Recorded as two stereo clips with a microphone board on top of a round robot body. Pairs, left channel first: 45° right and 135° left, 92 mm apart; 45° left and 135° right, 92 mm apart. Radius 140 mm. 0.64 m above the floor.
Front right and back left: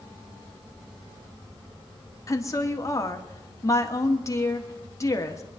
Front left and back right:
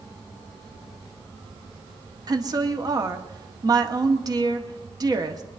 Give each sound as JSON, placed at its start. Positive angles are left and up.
{"t": 2.3, "sound": "a woman speaking", "azimuth_deg": -95, "distance_m": 1.8}